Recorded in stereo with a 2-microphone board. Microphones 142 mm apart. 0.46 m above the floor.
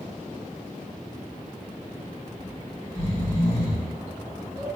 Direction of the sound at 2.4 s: 30° left (ahead or behind).